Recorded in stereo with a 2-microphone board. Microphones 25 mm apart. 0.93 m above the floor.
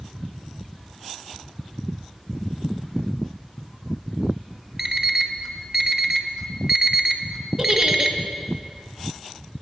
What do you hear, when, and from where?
4.8 s an alarm clock: 20° right (ahead or behind), 0.7 m
7.6 s a giggle: 25° right (ahead or behind), 0.8 m